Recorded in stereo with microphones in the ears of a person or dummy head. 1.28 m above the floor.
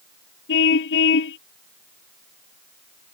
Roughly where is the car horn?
Left.